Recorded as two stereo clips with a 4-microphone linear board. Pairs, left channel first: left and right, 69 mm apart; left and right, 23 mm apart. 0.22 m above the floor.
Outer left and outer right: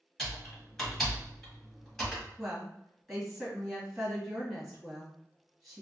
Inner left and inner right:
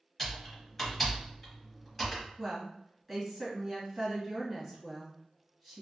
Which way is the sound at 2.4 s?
5° left (ahead or behind).